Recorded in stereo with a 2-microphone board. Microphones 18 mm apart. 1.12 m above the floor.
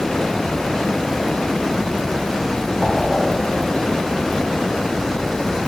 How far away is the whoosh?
About 0.9 m.